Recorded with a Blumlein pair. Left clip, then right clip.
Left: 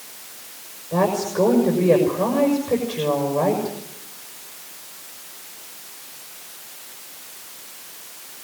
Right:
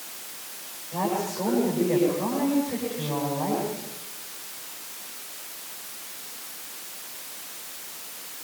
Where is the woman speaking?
40° left, 6 m.